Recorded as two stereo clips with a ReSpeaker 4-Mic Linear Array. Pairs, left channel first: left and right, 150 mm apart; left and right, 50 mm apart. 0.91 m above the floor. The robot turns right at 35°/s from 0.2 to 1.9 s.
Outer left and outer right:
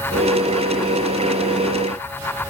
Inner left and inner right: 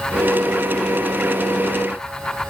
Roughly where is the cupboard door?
I don't hear a cupboard door.